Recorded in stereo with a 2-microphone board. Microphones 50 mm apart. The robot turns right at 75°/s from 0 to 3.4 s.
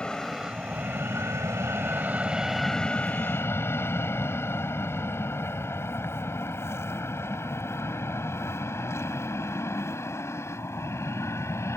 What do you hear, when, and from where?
0.0 s an aircraft: 20° left (ahead or behind); by 11.8 s 65° left (ahead or behind)